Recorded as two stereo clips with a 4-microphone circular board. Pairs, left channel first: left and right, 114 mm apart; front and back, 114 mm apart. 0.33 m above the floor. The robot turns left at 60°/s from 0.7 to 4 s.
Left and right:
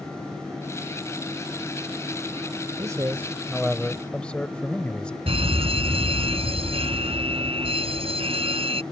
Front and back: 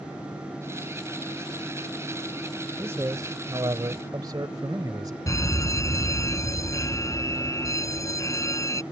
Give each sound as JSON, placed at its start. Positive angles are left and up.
{"t": 2.8, "sound": "a man speaking", "azimuth_deg": -125}
{"t": 5.3, "sound": "a fire alarm", "azimuth_deg": -60}